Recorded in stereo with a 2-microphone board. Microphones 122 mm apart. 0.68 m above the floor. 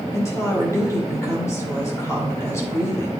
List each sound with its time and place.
0.1 s a woman speaking: 25° left (ahead or behind), 2.5 m